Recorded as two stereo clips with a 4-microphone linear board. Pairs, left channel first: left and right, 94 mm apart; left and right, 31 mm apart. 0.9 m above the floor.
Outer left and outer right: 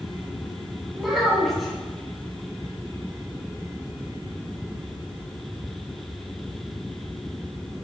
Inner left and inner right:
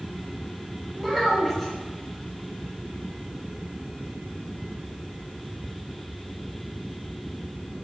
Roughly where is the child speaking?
Centre.